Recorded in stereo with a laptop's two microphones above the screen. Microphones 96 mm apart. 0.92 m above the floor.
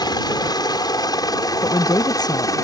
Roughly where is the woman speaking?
Left.